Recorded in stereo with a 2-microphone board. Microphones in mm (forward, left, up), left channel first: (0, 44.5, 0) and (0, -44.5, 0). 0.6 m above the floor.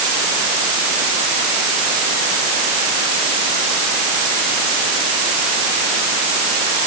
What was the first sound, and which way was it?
Only background noise.